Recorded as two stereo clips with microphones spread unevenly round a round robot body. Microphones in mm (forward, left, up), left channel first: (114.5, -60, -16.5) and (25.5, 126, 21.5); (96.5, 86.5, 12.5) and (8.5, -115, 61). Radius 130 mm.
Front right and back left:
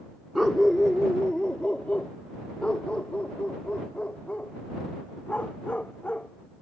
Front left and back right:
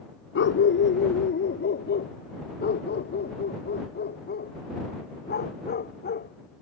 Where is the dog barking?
30° left; by 6.3 s 20° left.